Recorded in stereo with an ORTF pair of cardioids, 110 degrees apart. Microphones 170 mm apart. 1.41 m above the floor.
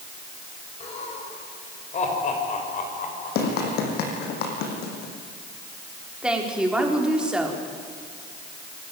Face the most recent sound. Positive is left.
turn(degrees=-5)